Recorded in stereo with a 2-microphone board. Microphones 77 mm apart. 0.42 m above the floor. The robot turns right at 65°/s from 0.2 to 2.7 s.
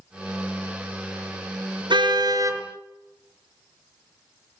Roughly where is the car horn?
Right.